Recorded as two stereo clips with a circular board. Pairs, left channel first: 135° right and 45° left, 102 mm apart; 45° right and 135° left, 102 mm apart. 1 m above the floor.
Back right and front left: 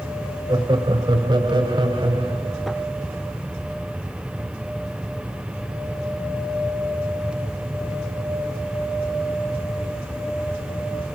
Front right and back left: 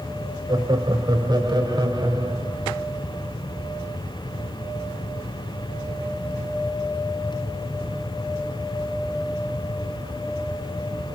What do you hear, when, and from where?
0.5 s laughter: 90° left, 3.5 m; by 2.8 s 85° left, 5.5 m